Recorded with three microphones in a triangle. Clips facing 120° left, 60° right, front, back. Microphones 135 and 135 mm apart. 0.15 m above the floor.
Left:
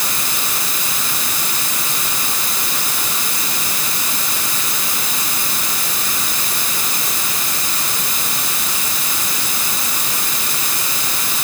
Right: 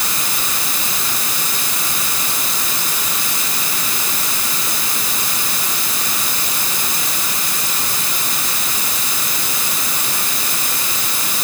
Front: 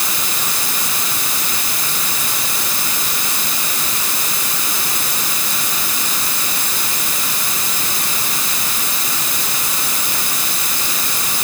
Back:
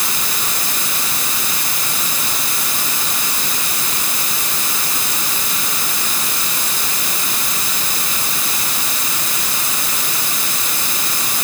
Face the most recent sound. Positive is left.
No sound to turn to.